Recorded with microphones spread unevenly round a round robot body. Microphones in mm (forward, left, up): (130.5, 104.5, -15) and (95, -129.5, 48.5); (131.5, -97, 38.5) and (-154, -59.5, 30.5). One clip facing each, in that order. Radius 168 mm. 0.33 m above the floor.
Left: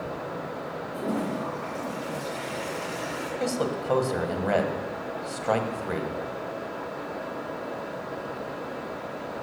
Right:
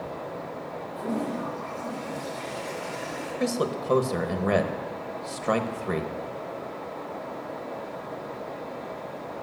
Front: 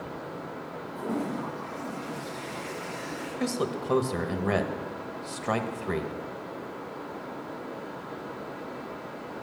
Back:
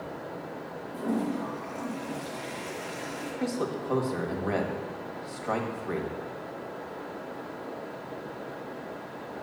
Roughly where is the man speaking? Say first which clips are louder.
Right 1 dB, front 1 dB; ahead right.